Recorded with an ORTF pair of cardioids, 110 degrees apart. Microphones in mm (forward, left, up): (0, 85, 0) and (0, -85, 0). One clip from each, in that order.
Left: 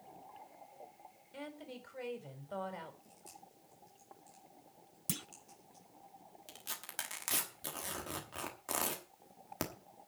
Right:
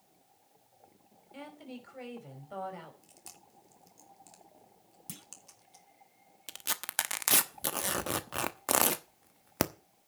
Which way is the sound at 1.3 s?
Straight ahead.